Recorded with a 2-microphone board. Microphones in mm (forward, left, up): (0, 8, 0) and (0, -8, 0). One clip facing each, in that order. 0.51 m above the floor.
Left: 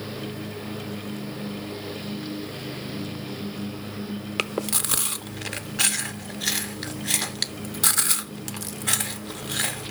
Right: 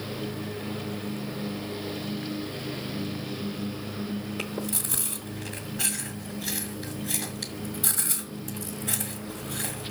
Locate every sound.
4.4 s chewing: 60° left (ahead or behind), 0.6 m